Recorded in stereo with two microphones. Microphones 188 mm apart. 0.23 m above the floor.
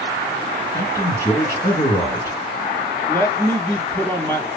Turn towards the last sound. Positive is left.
turn(degrees=10)  # may be behind; listen again after turning